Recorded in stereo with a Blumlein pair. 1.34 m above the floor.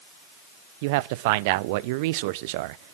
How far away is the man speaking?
About 0.6 m.